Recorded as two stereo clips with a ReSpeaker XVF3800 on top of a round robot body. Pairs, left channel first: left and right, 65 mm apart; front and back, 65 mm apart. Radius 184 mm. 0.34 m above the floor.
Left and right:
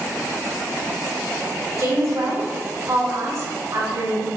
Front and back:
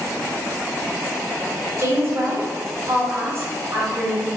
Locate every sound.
1.8 s a woman speaking: 130° right, 2.5 m